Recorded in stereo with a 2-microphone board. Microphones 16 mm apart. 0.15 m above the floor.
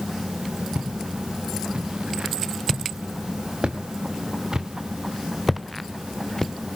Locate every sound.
0.8 s footsteps: 85° right, 3.5 m; by 6.5 s 30° left (ahead or behind), 1.4 m